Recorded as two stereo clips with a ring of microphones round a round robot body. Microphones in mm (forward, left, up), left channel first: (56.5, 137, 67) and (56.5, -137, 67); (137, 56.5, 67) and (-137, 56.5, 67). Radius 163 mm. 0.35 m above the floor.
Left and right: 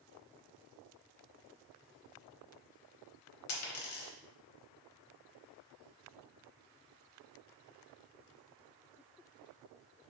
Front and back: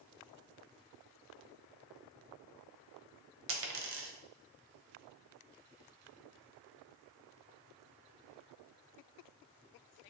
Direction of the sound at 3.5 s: 135° left.